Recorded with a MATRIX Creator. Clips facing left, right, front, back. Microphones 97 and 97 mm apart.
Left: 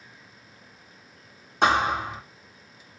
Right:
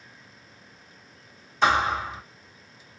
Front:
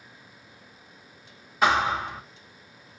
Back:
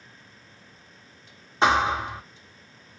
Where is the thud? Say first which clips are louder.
Even, back 1 dB; 115° left, 1.4 m.